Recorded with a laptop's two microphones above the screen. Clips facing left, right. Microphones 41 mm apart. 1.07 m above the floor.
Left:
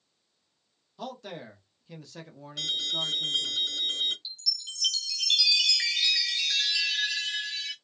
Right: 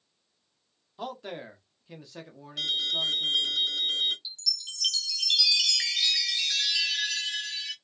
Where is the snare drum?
I don't hear a snare drum.